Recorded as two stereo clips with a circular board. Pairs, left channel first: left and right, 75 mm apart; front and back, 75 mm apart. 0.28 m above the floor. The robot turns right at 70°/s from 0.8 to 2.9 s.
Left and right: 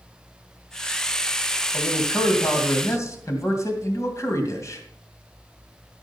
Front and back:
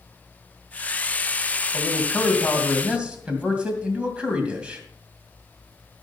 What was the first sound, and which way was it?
A man speaking, 30° left.